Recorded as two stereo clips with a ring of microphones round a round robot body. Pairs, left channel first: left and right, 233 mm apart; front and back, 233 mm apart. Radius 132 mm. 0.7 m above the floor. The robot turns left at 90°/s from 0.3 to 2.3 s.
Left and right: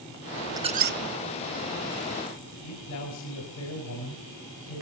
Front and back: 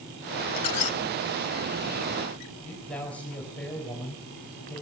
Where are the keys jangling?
No keys jangling in this recording.